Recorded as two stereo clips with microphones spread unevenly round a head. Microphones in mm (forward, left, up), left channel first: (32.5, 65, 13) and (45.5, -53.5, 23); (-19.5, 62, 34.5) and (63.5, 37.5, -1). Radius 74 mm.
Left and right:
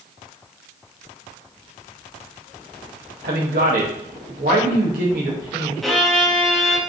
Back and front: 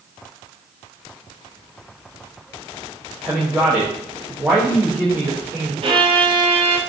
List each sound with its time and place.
3.2 s a man speaking: 95° right, 1.2 m
5.8 s a violin: 5° left, 0.8 m